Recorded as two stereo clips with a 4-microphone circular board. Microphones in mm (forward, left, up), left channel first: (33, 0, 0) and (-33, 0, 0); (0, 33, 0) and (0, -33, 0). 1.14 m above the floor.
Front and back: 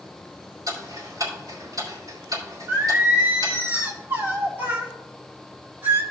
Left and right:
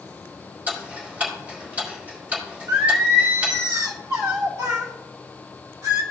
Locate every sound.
0.7 s ticking: 155° right, 4 m
2.7 s singing: 125° right, 1.7 m